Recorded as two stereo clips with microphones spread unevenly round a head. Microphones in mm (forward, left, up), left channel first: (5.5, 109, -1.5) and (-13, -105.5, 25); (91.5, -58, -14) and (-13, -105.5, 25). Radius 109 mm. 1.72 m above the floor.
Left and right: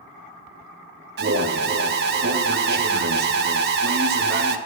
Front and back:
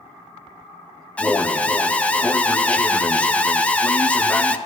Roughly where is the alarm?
Ahead right.